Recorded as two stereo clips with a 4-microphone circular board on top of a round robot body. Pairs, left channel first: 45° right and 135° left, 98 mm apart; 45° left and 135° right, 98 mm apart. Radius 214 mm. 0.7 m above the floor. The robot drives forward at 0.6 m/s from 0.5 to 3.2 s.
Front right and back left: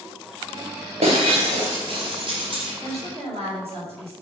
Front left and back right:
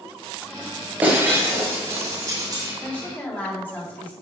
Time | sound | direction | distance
1.0 | breaking glass | 150° left | 0.6 m
2.8 | a woman speaking | 120° left | 3.5 m